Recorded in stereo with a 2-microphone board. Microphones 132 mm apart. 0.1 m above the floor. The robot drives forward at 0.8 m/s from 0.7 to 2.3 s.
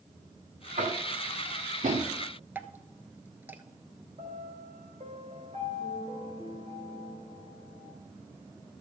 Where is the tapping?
70° right (ahead or behind), 1.8 m.